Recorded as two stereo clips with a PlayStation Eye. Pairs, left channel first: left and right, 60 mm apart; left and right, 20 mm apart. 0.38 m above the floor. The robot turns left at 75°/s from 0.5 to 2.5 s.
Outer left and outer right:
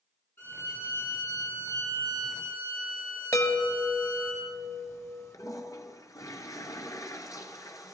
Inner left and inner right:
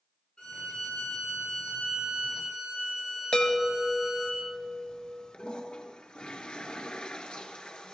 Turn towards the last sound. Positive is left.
turn(degrees=60)  # may be behind; listen again after turning